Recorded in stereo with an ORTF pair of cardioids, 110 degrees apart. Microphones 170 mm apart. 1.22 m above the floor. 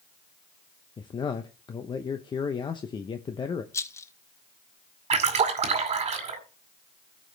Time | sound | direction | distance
1.0 | a man speaking | 25° left | 0.7 m
3.7 | a rattle | 15° left | 0.6 m
5.1 | a splash | 40° right | 2 m